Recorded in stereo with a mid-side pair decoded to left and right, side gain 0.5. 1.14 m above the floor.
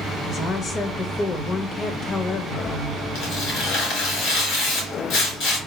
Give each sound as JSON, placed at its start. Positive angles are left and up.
{"t": 0.3, "sound": "a woman speaking", "azimuth_deg": 45, "distance_m": 0.9}
{"t": 3.1, "sound": "tearing paper", "azimuth_deg": 65, "distance_m": 2.5}